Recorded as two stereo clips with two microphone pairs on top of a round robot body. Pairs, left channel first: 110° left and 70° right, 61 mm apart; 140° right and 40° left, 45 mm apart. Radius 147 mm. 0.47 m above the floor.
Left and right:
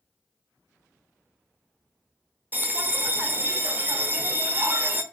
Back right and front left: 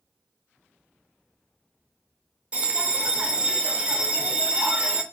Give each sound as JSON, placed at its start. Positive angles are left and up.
{"t": 2.5, "sound": "a bell", "azimuth_deg": -20, "distance_m": 0.6}